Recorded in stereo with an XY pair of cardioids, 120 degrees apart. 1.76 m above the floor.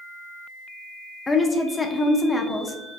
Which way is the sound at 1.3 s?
20° left.